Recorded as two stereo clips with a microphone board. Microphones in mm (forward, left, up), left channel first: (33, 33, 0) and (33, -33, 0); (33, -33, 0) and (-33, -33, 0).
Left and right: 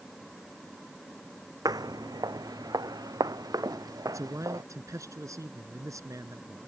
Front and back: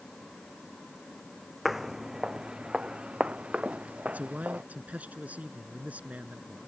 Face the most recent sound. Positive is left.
turn(degrees=-115)